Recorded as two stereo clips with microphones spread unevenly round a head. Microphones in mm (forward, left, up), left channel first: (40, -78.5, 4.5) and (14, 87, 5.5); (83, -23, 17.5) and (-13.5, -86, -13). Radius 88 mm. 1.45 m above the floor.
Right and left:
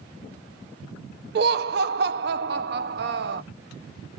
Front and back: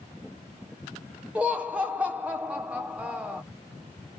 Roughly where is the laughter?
Behind left.